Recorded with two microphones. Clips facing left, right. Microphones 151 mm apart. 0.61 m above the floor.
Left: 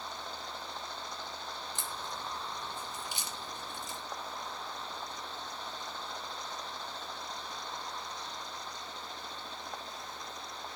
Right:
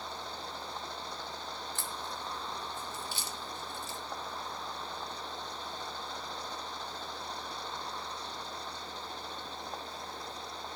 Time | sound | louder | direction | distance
1.8 | a crack | right 1 dB | 15° left (ahead or behind) | 0.8 m